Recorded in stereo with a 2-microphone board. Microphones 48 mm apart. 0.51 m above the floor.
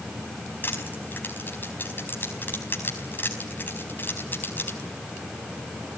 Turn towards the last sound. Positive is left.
turn(degrees=40)  # may be behind; listen again after turning